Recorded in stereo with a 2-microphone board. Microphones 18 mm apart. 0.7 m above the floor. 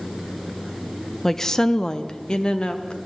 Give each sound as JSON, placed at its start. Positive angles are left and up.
{"t": 1.2, "sound": "a woman speaking", "side_deg": 20, "distance_m": 0.6}